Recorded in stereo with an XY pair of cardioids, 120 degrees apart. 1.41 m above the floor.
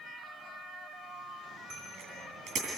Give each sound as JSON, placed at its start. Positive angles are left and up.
{"t": 1.7, "sound": "a bicycle bell", "azimuth_deg": -65, "distance_m": 8.5}